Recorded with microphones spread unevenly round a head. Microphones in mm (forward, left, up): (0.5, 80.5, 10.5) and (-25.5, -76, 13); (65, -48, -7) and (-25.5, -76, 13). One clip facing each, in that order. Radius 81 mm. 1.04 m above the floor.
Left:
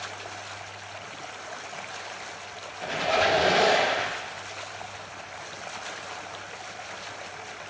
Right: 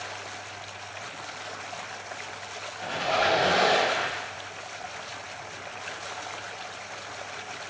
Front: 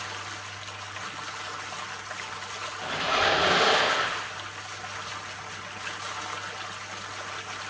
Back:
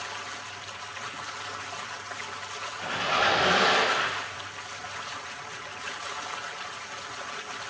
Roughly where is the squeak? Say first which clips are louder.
Left 2 dB, even; left.